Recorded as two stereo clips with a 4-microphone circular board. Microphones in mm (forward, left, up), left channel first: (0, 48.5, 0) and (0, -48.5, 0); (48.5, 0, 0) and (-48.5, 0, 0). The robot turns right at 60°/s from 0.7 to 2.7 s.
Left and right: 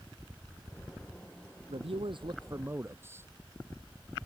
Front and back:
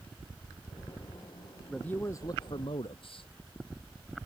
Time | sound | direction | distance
1.7 | a man speaking | 85° right | ?